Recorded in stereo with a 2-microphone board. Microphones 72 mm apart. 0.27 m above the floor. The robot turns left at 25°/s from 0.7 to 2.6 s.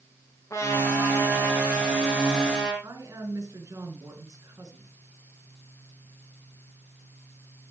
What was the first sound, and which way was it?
A trumpet, 40° left.